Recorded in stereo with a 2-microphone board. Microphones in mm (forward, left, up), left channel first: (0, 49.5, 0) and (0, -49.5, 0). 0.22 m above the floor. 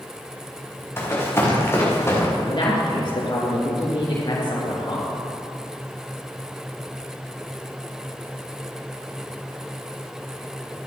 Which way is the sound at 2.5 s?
50° left (ahead or behind).